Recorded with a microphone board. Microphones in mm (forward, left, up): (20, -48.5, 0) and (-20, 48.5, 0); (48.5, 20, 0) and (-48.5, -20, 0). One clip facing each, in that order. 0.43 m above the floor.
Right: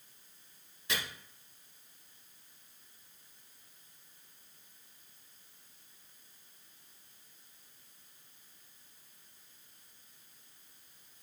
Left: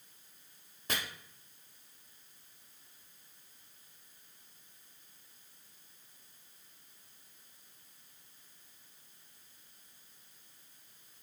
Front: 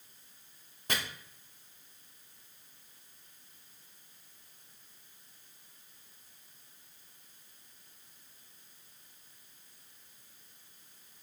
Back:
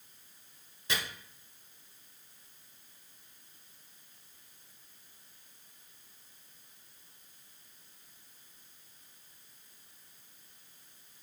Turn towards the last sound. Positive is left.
turn(degrees=65)